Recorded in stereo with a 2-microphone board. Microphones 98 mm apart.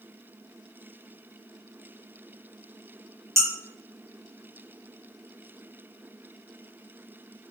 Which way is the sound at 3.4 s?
30° right (ahead or behind).